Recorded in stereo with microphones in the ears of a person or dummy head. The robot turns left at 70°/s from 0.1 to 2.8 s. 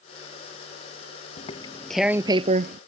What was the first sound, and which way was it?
Tearing paper, 35° left (ahead or behind).